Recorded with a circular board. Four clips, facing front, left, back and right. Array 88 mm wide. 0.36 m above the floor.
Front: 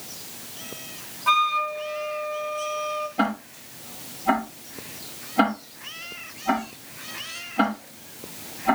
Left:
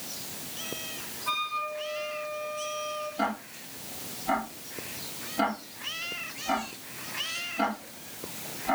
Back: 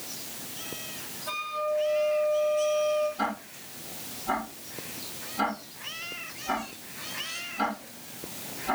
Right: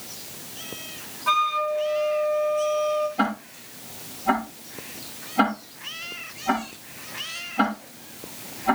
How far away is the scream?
I don't hear a scream.